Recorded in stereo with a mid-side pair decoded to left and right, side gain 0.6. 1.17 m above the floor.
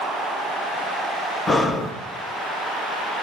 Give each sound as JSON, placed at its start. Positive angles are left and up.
{"t": 1.5, "sound": "breathing", "azimuth_deg": 25, "distance_m": 1.1}